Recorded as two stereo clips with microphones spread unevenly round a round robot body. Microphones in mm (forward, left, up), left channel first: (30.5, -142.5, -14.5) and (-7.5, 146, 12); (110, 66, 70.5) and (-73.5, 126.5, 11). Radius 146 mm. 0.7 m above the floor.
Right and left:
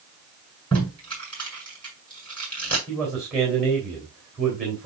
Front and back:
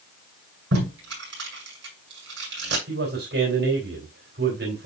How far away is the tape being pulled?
About 6.5 m.